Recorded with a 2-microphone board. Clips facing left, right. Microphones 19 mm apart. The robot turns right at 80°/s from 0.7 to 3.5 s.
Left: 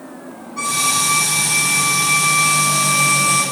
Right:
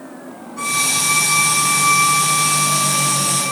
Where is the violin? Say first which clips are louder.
Left 1 dB; 145° left, 9.5 m; by 3.4 s 5° left, 9.5 m.